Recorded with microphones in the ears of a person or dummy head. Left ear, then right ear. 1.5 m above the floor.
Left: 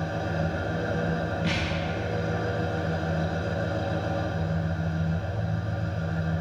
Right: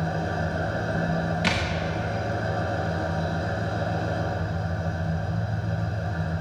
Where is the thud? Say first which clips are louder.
Right 6 dB; 30° right (ahead or behind), 0.9 m.